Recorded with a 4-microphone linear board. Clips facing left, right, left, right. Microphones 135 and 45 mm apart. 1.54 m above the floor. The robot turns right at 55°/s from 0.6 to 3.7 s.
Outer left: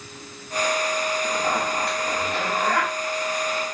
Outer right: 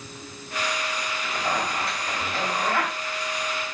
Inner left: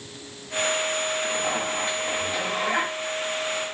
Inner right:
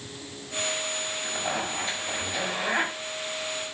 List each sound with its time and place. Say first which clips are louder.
1.2 s a zipper: outer left 3 dB, inner left 4 dB; 30° left, 2.5 m; by 2.9 s 125° left, 2.5 m